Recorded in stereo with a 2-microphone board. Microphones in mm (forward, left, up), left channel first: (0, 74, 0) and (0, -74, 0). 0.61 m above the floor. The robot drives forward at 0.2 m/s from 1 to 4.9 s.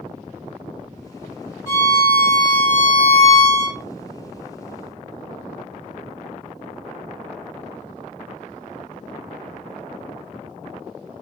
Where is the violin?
35° left (ahead or behind), 1.3 m; by 3.8 s 45° left (ahead or behind), 0.9 m.